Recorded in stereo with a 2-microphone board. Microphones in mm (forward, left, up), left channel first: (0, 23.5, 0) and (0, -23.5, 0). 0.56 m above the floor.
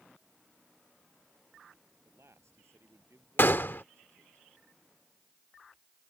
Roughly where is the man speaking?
Right.